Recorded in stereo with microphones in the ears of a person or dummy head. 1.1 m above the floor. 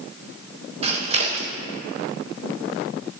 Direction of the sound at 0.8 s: 30° right (ahead or behind).